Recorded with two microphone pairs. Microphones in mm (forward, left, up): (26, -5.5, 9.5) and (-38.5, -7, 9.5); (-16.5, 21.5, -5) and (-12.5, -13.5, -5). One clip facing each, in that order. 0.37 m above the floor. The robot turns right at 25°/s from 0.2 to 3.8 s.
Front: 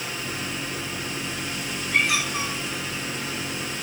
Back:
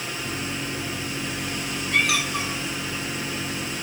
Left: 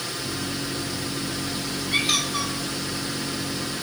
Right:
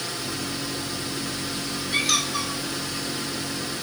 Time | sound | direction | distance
1.9 | a squeak | 160° left | 1.8 m